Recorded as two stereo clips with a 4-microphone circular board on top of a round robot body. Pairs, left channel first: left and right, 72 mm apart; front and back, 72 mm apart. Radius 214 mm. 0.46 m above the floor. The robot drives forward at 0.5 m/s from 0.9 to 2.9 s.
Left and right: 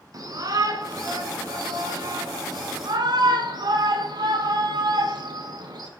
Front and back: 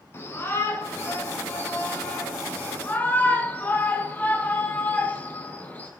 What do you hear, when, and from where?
0.1 s a shout: 55° right, 5.5 m; by 5.9 s 65° right, 5 m